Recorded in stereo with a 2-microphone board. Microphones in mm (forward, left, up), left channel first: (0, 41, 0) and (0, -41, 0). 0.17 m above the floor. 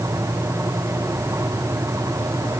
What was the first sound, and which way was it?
Only background noise.